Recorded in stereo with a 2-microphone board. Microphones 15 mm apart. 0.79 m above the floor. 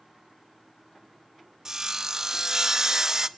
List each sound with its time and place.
1.6 s sawing: 40° right (ahead or behind), 0.6 m